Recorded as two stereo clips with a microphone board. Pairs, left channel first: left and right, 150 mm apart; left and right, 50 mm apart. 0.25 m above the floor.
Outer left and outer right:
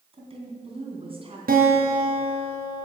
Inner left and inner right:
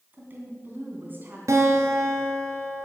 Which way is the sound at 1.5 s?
80° right.